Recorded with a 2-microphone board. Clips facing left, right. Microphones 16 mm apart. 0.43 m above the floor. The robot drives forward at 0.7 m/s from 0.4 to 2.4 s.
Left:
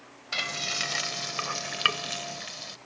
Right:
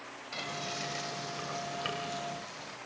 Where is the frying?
45° left (ahead or behind), 1.8 m; by 2.8 s 55° left (ahead or behind), 1.5 m.